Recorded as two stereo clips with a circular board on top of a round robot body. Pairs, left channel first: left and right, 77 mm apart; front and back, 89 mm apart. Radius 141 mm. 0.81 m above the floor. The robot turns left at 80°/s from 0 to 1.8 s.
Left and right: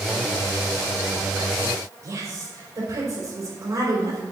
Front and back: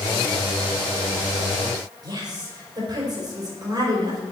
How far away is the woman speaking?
About 4 m.